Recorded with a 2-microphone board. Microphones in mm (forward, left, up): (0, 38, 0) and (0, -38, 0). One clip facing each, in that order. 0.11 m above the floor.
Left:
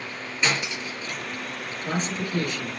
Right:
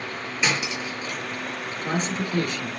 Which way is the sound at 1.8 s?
35° right (ahead or behind).